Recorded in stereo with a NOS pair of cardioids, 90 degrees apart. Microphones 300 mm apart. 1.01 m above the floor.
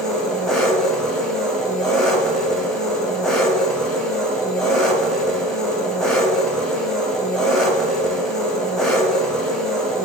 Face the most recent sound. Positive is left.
turn(degrees=0)